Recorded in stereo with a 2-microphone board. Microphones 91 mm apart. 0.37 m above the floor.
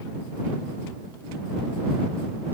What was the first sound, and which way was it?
Only background noise.